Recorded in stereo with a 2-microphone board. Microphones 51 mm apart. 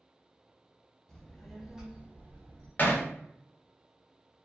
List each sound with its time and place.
1.1 s a child speaking: 15° left (ahead or behind), 1.1 m; by 2.7 s 65° right (ahead or behind), 0.8 m
2.8 s hammering: 40° left (ahead or behind), 0.9 m